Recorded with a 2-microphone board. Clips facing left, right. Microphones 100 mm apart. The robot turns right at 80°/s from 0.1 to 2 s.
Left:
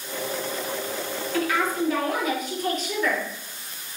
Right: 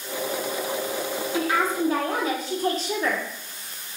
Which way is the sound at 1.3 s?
145° right.